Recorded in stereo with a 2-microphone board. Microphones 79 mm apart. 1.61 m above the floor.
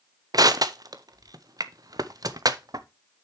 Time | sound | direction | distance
0.3 | crushing | 55° right (ahead or behind) | 0.5 m